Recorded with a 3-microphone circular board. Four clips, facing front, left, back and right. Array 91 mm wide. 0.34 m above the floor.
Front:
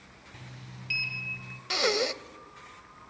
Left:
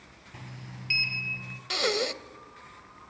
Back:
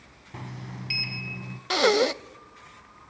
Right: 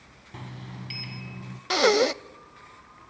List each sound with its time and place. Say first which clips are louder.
0.3 s a sliding door: right 5 dB, back 10 dB; 150° right, 1.0 m
1.7 s breathing: right 9 dB, back 7 dB; 130° right, 0.6 m